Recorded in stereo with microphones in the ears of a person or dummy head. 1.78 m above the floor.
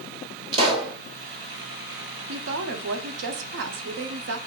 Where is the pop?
30° right (ahead or behind), 1.0 m.